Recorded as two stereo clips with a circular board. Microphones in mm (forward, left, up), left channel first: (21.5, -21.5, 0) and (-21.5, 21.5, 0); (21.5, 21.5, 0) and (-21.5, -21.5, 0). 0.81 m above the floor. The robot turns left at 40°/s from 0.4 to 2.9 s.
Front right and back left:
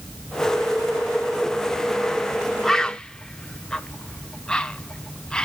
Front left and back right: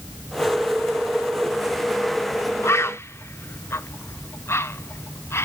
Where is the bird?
35° left, 0.5 m; by 5.5 s 25° left, 0.5 m.